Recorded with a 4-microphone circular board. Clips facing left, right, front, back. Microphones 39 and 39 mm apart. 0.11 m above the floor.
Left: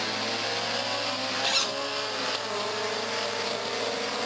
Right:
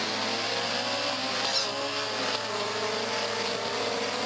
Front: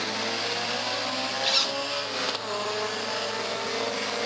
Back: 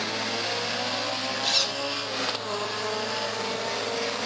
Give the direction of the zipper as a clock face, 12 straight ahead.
10 o'clock.